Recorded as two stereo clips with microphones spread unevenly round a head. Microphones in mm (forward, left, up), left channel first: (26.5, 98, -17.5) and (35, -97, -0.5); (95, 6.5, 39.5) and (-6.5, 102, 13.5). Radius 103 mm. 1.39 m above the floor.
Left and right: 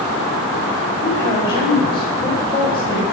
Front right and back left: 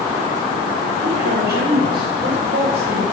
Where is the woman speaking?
160° left, 5 m.